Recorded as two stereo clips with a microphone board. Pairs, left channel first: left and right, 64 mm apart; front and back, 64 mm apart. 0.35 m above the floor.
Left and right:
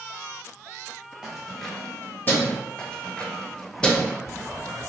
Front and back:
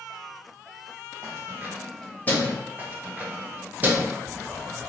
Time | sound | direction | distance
1.2 | keys jangling | 165° right | 1.0 m
2.8 | keys jangling | 155° left | 0.6 m